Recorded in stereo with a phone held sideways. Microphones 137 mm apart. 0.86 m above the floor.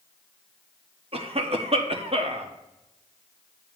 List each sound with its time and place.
1.1 s a cough: 45° right (ahead or behind), 1.0 m